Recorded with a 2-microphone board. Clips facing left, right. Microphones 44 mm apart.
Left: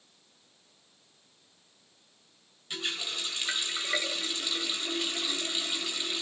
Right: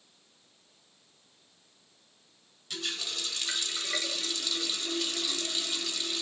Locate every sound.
2.7 s a running tap: 25° left (ahead or behind), 1.8 m